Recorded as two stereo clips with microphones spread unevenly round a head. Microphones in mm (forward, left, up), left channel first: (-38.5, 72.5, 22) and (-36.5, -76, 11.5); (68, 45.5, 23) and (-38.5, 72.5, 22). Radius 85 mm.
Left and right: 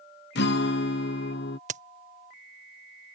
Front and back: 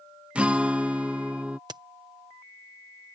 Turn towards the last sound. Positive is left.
turn(degrees=-130)